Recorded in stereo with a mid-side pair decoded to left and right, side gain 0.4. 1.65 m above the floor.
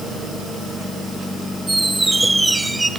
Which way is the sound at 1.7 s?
20° right.